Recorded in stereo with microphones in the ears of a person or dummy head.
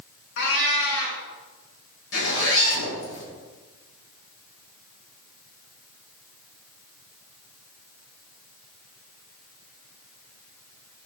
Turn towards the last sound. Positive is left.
turn(degrees=75)  # may be behind; listen again after turning